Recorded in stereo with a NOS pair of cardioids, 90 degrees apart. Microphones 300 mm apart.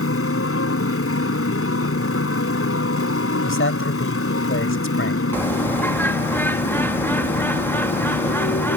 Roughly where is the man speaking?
Ahead left.